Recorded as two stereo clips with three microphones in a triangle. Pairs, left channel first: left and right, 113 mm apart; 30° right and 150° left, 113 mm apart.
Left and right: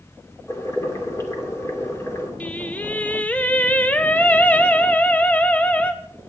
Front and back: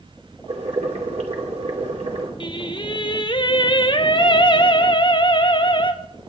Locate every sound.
0.5 s boiling: 150° left, 2.5 m
2.4 s singing: 15° left, 0.8 m